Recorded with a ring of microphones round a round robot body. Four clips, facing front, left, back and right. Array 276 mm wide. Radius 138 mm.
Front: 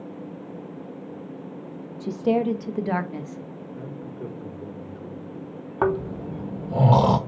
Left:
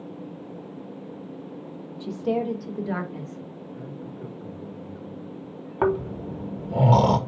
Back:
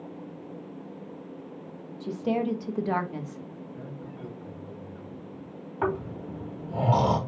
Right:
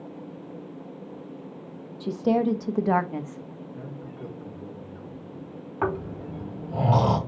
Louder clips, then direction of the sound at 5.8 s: Left 5 dB, front 6 dB; 35° left.